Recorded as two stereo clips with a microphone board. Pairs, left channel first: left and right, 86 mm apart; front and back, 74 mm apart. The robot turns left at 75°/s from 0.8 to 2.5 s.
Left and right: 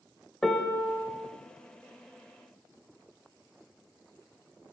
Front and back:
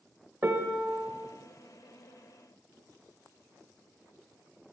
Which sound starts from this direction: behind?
A piano, at 0.4 s.